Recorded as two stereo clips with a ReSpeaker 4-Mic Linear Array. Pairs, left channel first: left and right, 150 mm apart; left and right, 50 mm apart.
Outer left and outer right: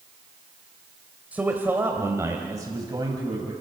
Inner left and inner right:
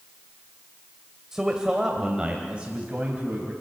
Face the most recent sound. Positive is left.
turn(degrees=-30)  # may be behind; listen again after turning